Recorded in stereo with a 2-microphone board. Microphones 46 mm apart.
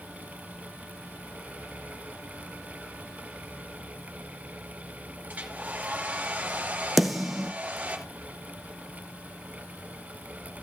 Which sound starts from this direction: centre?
A snare drum, at 7.0 s.